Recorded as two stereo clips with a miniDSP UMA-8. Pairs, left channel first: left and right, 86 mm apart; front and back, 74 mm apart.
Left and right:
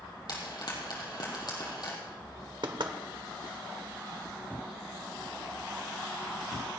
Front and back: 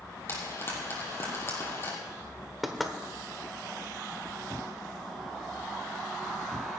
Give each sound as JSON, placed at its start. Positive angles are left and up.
{"t": 0.3, "sound": "frying", "azimuth_deg": 55, "distance_m": 3.5}
{"t": 2.6, "sound": "knocking", "azimuth_deg": -90, "distance_m": 1.3}